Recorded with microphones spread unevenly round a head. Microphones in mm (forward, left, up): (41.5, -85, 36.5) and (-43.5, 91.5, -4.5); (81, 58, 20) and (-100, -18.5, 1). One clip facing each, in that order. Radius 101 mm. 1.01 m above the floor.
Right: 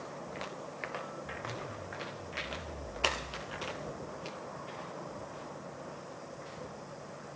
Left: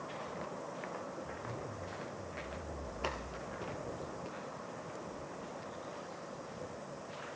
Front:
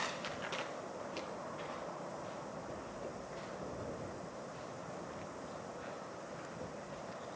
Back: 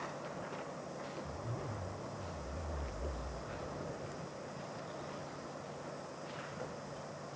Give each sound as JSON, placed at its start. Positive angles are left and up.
{"t": 1.2, "sound": "a zipper", "azimuth_deg": -145}